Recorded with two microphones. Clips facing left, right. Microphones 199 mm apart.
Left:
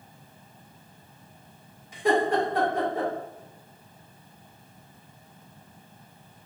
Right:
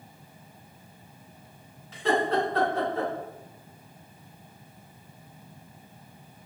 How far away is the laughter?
About 1.6 m.